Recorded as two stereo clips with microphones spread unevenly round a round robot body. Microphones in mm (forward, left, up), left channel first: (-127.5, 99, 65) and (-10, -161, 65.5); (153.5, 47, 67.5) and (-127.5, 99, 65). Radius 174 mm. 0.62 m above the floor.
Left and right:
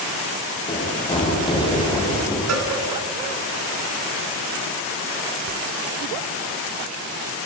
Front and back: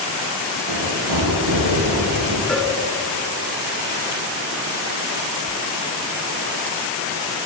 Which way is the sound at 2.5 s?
100° right.